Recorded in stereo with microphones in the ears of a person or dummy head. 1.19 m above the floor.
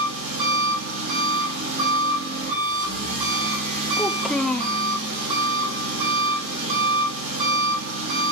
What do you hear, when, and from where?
0.0 s an engine running: 50° right (ahead or behind), 7.5 m
4.0 s a child speaking: 5° left (ahead or behind), 0.6 m